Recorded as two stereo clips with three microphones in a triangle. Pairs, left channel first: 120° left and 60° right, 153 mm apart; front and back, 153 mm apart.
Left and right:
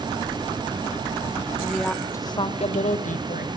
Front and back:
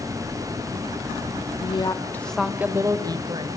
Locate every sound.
1.6 s a woman speaking: 15° left, 1.5 m; by 3.5 s 125° left, 2.5 m